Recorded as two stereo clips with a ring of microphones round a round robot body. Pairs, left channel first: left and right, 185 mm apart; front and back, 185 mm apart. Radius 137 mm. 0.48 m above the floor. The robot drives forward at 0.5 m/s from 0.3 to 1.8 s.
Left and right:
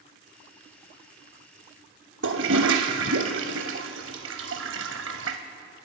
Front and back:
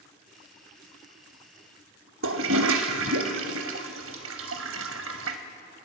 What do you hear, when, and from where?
2.2 s a toilet flushing: 135° right, 0.6 m